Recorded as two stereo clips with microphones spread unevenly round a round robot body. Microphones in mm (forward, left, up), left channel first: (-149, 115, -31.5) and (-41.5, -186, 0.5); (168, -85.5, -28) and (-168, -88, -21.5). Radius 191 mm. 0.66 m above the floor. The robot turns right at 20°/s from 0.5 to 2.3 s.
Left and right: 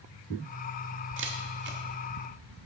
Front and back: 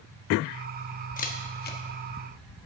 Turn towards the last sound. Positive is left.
turn(degrees=-20)